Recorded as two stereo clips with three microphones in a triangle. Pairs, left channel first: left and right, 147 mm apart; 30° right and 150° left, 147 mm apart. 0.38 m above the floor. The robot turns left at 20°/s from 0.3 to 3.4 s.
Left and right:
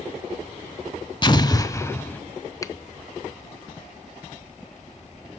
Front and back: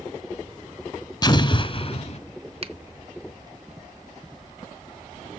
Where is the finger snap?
145° left, 0.8 m; by 2.7 s 140° left, 0.8 m.